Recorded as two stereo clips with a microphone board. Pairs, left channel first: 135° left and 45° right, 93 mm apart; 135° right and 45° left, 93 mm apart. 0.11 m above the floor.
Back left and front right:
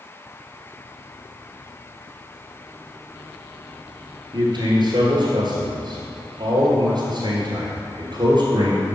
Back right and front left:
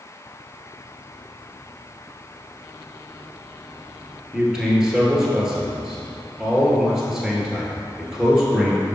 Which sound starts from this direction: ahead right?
A man speaking, at 4.3 s.